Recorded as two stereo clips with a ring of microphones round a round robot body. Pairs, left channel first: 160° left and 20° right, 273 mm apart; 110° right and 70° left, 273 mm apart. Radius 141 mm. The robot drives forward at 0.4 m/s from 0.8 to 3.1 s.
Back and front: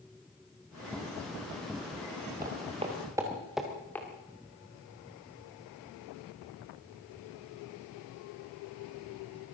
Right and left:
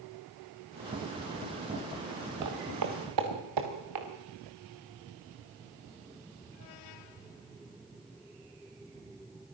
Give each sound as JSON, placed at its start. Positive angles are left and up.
{"t": 2.4, "sound": "footsteps", "azimuth_deg": 40, "distance_m": 4.0}